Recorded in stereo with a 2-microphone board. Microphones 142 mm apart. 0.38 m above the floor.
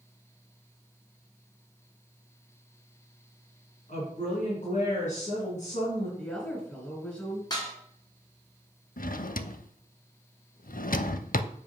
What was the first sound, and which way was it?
A woman speaking, 60° left (ahead or behind).